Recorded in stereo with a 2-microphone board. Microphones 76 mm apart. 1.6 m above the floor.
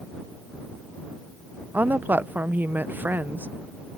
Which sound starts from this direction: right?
A woman speaking, at 1.7 s.